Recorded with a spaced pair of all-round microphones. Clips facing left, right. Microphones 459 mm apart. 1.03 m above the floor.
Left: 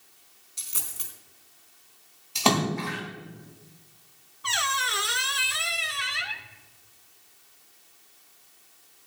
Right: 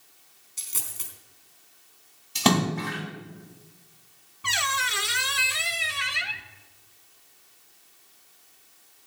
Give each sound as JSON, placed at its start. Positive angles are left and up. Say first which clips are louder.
{"t": 0.6, "sound": "a dropped coin", "louder": "right 1 dB", "side_deg": -10, "distance_m": 3.5}
{"t": 2.4, "sound": "a splash", "louder": "right 2 dB", "side_deg": -35, "distance_m": 3.5}
{"t": 4.4, "sound": "a squeak", "louder": "even", "side_deg": -45, "distance_m": 0.8}